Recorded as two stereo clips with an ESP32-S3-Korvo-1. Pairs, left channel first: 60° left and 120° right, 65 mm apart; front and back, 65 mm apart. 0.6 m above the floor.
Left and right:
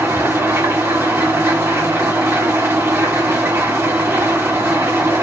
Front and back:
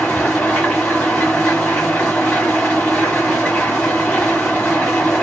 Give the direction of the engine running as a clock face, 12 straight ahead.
2 o'clock.